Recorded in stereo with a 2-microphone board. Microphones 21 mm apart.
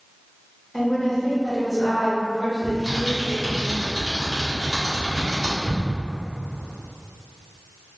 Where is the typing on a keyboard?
20° right (ahead or behind), 1.7 m.